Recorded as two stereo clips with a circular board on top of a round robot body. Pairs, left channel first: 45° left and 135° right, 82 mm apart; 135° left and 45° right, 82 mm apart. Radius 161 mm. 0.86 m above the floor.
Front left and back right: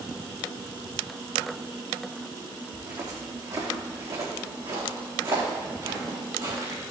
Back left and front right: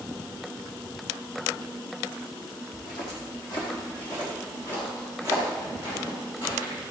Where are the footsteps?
170° left, 1.8 m.